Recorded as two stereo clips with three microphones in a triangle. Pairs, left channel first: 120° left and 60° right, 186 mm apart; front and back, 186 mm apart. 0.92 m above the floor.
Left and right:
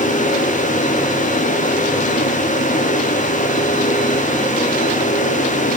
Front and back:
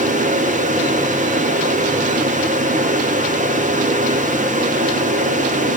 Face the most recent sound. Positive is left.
No sound to turn to.